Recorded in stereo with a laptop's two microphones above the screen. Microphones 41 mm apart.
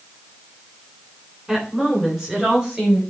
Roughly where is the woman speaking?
Centre.